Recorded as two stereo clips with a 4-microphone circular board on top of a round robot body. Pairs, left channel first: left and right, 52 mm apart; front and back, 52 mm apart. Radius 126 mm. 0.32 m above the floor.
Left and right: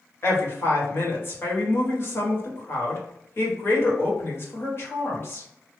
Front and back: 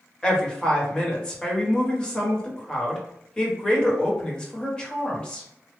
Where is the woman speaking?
70° left, 1.9 m.